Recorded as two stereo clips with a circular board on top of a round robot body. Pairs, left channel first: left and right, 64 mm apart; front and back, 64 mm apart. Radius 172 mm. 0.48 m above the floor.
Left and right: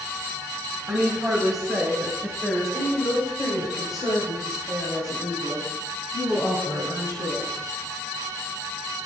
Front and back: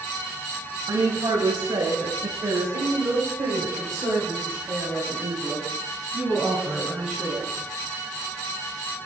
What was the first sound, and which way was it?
A woman speaking, straight behind.